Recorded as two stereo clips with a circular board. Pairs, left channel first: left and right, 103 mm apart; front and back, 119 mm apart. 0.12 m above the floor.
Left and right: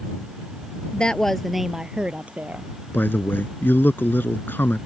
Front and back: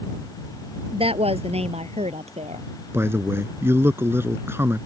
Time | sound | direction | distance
0.9 | a woman speaking | 165° left | ?
2.9 | a man speaking | 135° left | ?